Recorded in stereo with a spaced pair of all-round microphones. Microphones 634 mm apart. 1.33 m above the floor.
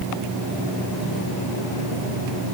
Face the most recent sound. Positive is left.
No sound to turn to.